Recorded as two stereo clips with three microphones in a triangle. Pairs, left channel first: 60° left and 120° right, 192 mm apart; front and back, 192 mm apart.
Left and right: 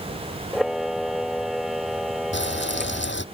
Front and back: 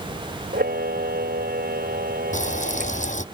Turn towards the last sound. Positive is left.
turn(degrees=50)